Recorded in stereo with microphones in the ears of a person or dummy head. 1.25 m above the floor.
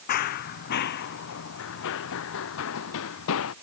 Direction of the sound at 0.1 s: 50° left (ahead or behind).